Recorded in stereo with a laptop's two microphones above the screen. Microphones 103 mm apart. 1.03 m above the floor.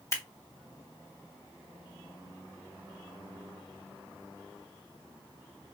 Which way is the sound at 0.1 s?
30° left (ahead or behind).